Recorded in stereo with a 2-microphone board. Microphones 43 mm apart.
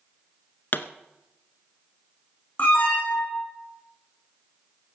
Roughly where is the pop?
Left.